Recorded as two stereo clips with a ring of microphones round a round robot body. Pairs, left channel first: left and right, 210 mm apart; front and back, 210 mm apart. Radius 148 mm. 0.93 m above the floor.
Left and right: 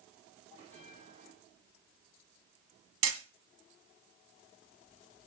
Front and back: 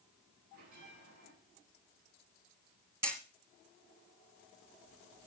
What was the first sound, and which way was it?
A bell, 160° right.